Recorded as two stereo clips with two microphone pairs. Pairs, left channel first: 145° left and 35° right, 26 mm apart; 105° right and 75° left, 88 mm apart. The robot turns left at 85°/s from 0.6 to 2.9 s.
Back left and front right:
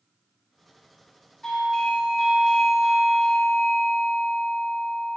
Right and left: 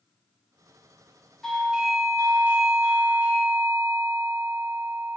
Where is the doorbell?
175° right, 1.8 m; by 5.2 s 60° left, 1.8 m.